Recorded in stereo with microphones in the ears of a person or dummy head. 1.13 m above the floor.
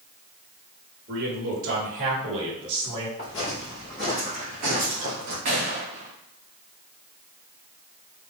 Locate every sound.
1.1 s a man speaking: 60° right (ahead or behind), 1.8 m; by 3.1 s 25° right (ahead or behind), 1.6 m
3.2 s footsteps: 25° left (ahead or behind), 1.6 m; by 5.3 s 55° right (ahead or behind), 1.7 m
5.5 s a gunshot: 20° right (ahead or behind), 0.6 m